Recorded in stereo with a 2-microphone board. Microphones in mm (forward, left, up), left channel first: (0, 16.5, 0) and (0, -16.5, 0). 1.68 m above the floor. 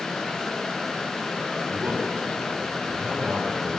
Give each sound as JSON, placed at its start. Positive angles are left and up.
{"t": 1.7, "sound": "a man speaking", "side_deg": -45, "distance_m": 5.0}